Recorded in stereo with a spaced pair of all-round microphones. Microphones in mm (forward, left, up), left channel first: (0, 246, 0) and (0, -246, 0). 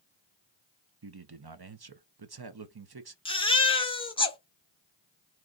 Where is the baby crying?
10° left (ahead or behind), 0.8 m.